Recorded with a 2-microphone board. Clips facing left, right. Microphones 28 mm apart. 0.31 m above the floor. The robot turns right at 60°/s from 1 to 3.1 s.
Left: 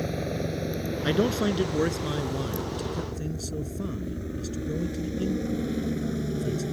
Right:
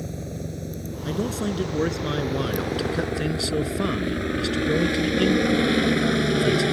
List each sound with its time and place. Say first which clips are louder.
0.0 s a helicopter: left 4 dB; 35° left (ahead or behind); by 6.7 s 70° right (ahead or behind)
1.0 s a man speaking: left 2 dB; 135° left; by 6.6 s 100° right